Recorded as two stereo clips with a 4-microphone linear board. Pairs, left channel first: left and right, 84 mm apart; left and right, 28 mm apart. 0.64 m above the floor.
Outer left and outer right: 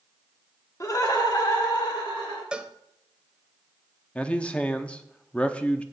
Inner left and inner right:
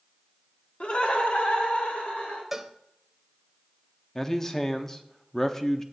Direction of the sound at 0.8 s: 40° left (ahead or behind).